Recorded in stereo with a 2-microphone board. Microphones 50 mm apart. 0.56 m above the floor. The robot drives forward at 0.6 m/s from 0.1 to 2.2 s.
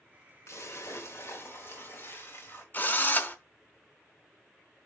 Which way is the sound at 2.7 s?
40° left (ahead or behind).